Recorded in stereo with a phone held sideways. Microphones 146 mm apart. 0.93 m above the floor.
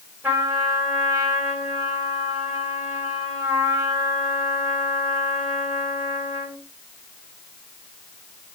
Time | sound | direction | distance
0.2 | a trumpet | 15° right (ahead or behind) | 3.5 m